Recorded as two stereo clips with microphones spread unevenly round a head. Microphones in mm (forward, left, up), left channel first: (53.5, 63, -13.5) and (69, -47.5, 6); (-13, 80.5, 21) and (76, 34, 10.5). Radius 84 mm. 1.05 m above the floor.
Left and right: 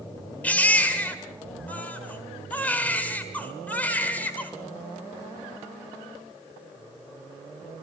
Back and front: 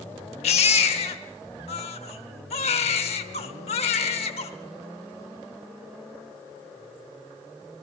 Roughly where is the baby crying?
Behind.